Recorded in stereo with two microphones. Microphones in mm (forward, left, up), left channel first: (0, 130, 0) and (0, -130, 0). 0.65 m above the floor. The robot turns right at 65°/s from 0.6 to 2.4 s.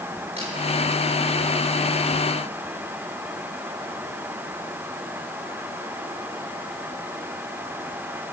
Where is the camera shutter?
25° right (ahead or behind), 6.5 m.